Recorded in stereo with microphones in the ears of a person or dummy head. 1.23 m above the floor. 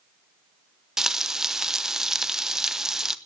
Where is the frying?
5° right (ahead or behind), 0.6 m.